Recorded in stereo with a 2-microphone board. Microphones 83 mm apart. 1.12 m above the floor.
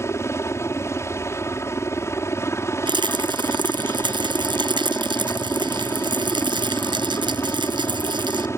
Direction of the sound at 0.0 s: 35° left (ahead or behind).